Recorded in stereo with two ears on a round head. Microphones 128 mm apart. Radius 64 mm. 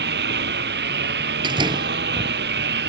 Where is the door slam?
35° right (ahead or behind).